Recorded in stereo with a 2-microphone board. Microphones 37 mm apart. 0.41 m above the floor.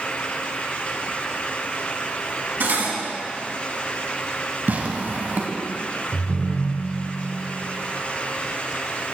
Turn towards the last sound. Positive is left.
turn(degrees=-45)  # may be behind; listen again after turning